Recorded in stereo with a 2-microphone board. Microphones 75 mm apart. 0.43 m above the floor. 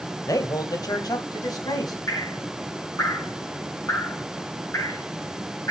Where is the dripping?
45° left (ahead or behind), 5 m.